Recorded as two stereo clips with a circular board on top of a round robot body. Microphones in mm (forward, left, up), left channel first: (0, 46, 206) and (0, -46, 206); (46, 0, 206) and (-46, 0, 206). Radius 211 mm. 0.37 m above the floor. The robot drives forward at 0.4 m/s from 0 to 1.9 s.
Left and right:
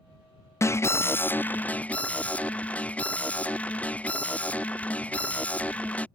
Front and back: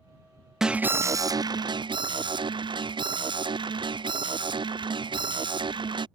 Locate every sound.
0.6 s an alarm: 100° left; by 6.1 s 165° left